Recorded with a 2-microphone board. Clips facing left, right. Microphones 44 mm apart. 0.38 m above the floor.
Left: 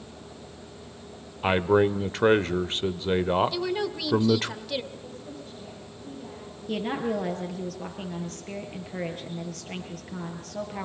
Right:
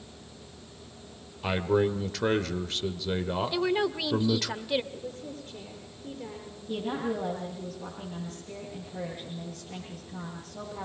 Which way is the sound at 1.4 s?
30° left (ahead or behind).